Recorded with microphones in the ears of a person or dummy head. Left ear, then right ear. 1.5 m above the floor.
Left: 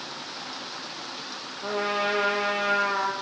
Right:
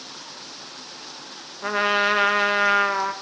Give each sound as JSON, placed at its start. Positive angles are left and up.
{"t": 1.6, "sound": "a trumpet", "side_deg": -65, "distance_m": 0.9}